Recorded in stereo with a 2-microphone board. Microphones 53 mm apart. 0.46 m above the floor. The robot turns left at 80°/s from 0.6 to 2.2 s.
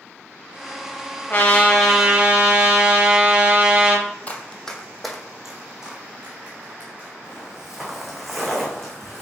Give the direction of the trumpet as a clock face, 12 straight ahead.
10 o'clock.